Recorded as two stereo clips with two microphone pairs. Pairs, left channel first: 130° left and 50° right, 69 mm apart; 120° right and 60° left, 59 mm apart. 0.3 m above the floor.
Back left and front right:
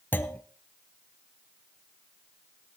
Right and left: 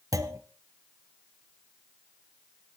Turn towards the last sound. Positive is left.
turn(degrees=65)